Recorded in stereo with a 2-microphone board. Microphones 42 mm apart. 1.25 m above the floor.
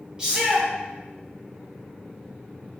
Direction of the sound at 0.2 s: 25° right (ahead or behind).